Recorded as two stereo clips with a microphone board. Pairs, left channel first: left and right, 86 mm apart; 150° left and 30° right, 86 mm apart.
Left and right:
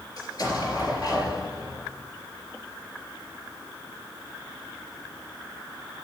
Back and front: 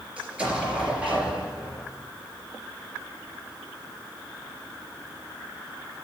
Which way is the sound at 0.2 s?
45° left.